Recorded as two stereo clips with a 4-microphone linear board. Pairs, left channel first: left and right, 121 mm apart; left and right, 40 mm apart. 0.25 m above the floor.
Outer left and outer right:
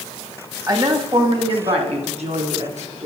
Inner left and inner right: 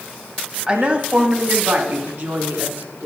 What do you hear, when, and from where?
0.7 s a woman speaking: 30° right (ahead or behind), 1.0 m; by 3.1 s 70° right (ahead or behind), 2.5 m